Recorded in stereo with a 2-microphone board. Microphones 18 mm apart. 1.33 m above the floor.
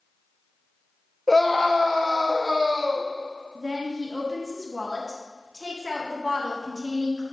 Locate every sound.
1.3 s a scream: 10° left (ahead or behind), 0.7 m; by 3.1 s 5° left (ahead or behind), 3 m
3.5 s a woman speaking: 15° right (ahead or behind), 1.8 m